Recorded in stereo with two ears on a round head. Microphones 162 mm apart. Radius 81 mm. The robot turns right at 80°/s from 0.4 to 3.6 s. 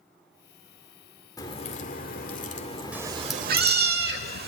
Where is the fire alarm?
I don't hear a fire alarm.